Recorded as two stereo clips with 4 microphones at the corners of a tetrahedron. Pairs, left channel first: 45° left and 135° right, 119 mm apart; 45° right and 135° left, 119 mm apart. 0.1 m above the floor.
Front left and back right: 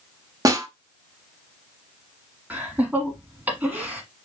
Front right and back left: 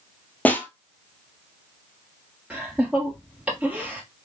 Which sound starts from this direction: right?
A snare drum, at 0.5 s.